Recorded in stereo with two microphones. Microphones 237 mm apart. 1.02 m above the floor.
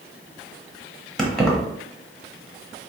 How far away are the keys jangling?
About 1.0 m.